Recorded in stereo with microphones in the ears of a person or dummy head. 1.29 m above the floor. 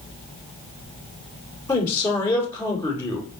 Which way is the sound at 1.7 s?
15° left (ahead or behind).